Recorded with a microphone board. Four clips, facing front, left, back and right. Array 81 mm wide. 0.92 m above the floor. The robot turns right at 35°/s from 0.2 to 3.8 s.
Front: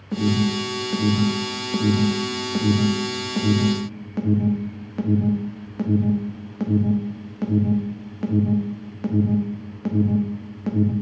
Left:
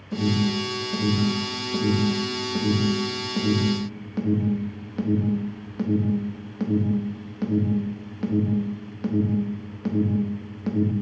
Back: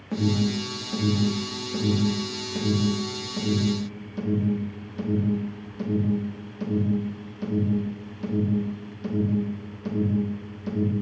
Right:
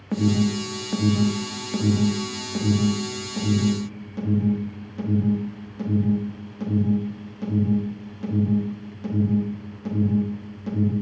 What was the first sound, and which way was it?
An alarm, 100° right.